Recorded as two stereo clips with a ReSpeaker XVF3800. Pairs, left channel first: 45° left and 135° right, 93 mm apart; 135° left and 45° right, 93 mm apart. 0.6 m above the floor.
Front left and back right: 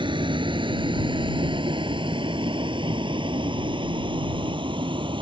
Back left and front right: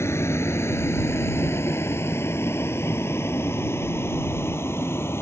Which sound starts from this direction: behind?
A vehicle, at 0.0 s.